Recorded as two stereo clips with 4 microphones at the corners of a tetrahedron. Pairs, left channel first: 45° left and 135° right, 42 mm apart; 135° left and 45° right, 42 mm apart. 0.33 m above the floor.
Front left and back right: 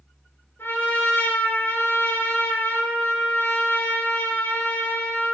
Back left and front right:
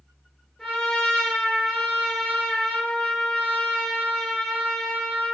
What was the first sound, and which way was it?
A trumpet, 40° left.